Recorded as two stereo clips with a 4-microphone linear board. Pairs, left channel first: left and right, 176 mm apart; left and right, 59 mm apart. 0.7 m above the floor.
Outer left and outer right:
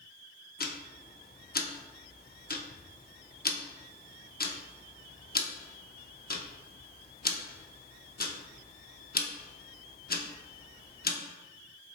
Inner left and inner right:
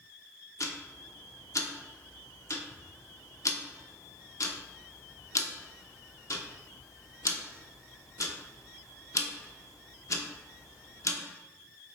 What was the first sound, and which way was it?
Ticking, 60° left (ahead or behind).